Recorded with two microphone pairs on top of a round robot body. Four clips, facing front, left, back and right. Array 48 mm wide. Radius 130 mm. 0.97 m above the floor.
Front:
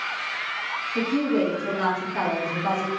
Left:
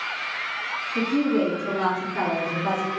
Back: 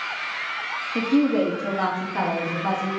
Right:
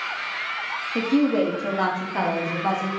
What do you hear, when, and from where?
0.9 s a woman speaking: 120° right, 1.8 m; by 3.0 s 100° right, 3 m